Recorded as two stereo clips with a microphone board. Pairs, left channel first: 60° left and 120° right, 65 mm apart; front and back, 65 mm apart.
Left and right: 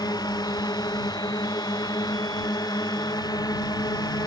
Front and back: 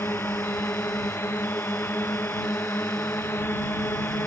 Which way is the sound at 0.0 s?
55° left.